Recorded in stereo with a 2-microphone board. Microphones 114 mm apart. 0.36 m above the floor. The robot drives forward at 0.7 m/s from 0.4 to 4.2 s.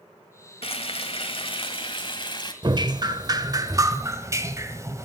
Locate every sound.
0.6 s frying: 55° left (ahead or behind), 1.9 m; by 2.5 s 40° left (ahead or behind), 2.5 m
2.6 s dripping: 40° right (ahead or behind), 1.1 m; by 5.1 s 25° right (ahead or behind), 1.6 m